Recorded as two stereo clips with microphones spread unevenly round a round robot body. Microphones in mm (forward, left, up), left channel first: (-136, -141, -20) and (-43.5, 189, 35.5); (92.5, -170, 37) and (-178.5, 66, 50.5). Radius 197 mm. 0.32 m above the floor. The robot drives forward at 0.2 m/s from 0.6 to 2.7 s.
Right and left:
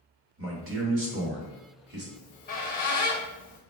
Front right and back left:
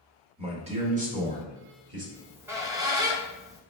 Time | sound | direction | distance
0.4 | a man speaking | 80° left | 0.9 m
2.1 | a squeak | 135° right | 0.8 m